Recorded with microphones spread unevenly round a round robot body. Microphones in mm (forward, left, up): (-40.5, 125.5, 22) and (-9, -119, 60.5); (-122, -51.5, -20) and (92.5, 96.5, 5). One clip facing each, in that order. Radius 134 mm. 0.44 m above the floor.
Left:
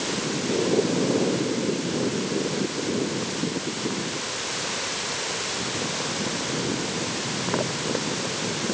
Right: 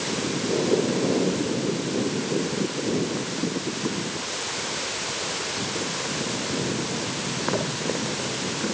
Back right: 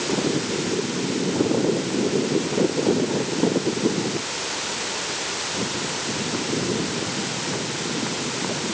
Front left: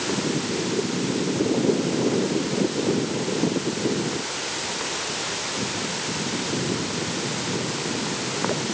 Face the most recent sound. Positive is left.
No sound to turn to.